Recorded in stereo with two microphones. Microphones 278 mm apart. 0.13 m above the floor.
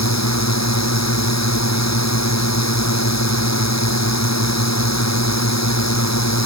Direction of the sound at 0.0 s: 75° left (ahead or behind).